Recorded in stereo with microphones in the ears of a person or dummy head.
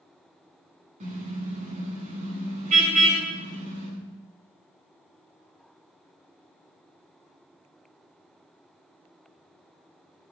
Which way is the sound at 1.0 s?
45° right (ahead or behind).